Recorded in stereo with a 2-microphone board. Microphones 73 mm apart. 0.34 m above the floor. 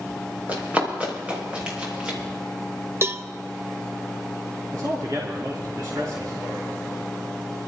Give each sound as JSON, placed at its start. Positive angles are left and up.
{"t": 0.5, "sound": "running footsteps", "side_deg": -20, "distance_m": 5.0}
{"t": 3.0, "sound": "a cowbell", "side_deg": -35, "distance_m": 0.5}
{"t": 4.7, "sound": "a man speaking", "side_deg": -70, "distance_m": 3.0}